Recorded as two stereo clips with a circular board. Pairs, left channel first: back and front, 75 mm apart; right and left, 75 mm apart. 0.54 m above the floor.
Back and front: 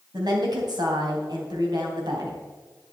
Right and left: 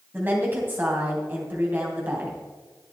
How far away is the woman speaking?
About 3 m.